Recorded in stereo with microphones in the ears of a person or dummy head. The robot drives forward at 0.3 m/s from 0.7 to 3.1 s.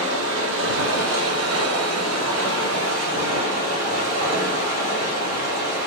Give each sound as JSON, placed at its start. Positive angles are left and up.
{"t": 0.0, "sound": "running water", "side_deg": -65, "distance_m": 1.0}